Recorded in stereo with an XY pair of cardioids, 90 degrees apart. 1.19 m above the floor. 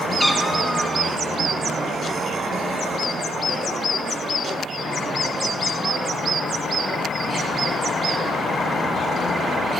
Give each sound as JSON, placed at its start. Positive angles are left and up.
{"t": 0.2, "sound": "a cat meowing", "azimuth_deg": 15, "distance_m": 1.4}